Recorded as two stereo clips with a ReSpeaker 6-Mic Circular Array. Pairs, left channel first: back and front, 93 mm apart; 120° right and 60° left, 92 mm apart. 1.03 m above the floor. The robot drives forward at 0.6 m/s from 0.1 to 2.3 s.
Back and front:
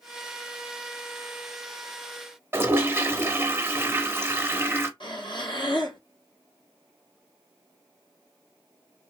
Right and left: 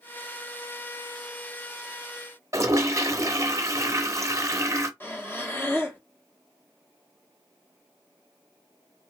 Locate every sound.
2.5 s a toilet flushing: 45° left, 0.6 m
5.0 s breathing: straight behind, 0.8 m